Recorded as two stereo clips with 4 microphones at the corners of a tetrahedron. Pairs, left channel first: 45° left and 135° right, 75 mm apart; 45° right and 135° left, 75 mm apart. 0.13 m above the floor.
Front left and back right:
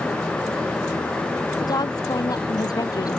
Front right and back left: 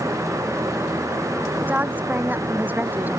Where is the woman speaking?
70° left.